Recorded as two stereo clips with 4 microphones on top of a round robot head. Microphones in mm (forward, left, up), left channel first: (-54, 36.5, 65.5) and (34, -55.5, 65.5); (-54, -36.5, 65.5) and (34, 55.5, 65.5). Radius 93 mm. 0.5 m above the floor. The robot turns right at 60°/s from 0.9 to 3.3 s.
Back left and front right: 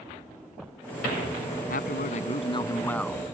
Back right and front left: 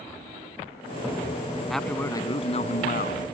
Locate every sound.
1.7 s a man speaking: 135° left; by 3.2 s 130° right